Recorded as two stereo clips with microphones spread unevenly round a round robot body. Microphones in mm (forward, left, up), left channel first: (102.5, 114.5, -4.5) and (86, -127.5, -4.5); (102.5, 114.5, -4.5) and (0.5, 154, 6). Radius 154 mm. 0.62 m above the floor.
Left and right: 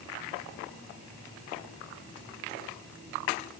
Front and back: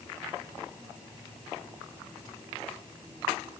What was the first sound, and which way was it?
Only background noise.